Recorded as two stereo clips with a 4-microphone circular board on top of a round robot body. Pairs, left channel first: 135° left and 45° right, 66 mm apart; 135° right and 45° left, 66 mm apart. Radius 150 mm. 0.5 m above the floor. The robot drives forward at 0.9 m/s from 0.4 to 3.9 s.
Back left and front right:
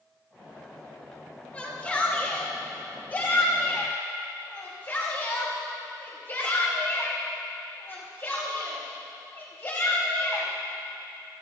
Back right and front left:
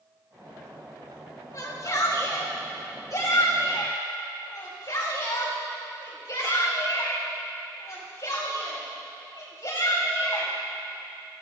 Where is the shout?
160° right, 2.5 m; by 10.5 s 170° right, 4.5 m.